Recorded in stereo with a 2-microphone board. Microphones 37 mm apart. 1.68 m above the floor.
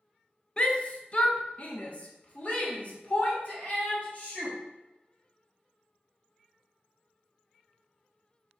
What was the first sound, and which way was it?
A shout, 25° left (ahead or behind).